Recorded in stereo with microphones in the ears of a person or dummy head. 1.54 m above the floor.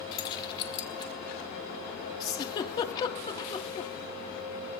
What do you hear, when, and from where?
0.1 s keys jangling: 25° left (ahead or behind), 1.6 m
2.2 s a giggle: 25° left (ahead or behind), 1.2 m